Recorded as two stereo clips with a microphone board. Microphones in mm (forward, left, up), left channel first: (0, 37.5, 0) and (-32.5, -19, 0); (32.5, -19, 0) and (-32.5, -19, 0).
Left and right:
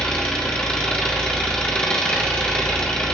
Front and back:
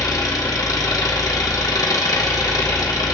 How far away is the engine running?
About 1.3 m.